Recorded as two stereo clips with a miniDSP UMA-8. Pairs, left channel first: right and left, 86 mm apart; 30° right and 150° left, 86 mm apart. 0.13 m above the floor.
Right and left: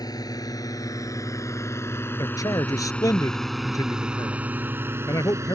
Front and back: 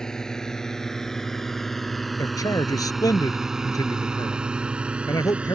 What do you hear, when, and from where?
0.0 s a drone: 110° right; by 5.6 s 85° left
2.2 s a man speaking: 60° right